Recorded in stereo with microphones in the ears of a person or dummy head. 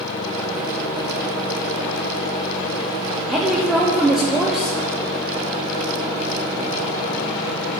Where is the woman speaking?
5° right (ahead or behind), 1.4 m.